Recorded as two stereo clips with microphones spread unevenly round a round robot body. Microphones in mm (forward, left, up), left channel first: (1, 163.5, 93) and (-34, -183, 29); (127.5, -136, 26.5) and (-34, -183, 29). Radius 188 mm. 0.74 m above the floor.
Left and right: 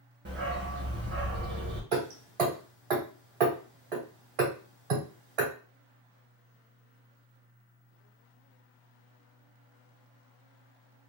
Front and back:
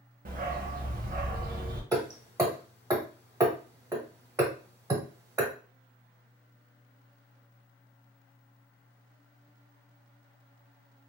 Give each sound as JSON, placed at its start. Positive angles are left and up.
{"t": 0.2, "sound": "a dog barking", "azimuth_deg": -160, "distance_m": 0.7}
{"t": 1.9, "sound": "hammering", "azimuth_deg": -95, "distance_m": 1.8}